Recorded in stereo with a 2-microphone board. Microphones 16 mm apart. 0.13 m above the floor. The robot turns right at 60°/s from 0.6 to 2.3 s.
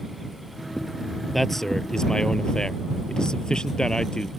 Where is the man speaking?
10° left; by 4.3 s 65° left.